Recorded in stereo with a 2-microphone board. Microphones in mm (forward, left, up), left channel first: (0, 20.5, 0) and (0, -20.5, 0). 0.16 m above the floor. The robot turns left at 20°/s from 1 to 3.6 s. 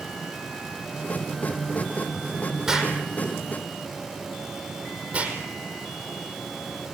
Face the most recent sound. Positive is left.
turn(degrees=-35)  # may be behind; listen again after turning